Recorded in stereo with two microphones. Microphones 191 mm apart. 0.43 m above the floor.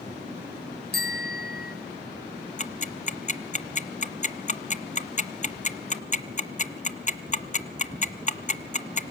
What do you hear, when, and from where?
0.9 s a bicycle bell: 60° left (ahead or behind), 2 m
2.6 s ticking: 40° left (ahead or behind), 0.7 m